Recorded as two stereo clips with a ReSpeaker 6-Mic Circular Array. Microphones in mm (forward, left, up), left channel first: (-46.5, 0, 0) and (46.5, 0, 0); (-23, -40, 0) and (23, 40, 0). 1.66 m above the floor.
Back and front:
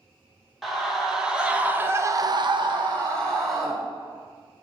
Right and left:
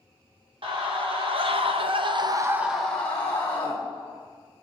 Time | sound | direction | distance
0.6 | a scream | 90° left | 2 m